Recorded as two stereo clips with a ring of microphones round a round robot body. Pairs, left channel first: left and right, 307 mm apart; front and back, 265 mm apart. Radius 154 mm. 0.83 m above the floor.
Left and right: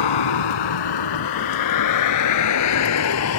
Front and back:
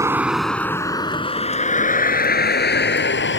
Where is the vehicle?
100° left; by 3.4 s 45° left.